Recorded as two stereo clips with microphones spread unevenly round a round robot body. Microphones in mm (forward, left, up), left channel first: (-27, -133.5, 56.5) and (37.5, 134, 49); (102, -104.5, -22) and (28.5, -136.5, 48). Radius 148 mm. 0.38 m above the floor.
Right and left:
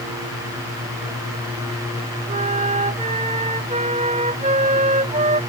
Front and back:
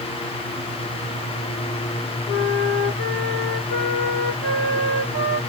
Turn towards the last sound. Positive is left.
turn(degrees=140)